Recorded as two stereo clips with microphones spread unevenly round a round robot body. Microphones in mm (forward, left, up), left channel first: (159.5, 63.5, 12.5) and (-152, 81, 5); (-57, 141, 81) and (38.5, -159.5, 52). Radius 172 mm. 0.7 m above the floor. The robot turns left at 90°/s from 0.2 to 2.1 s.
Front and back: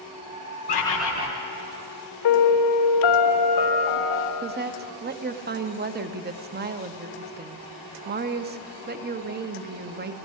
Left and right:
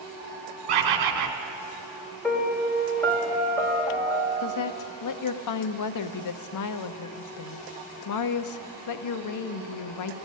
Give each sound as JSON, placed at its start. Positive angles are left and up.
{"t": 0.7, "sound": "a bird", "azimuth_deg": -65, "distance_m": 1.1}
{"t": 2.2, "sound": "a piano", "azimuth_deg": 25, "distance_m": 1.6}
{"t": 4.4, "sound": "a woman speaking", "azimuth_deg": 125, "distance_m": 0.7}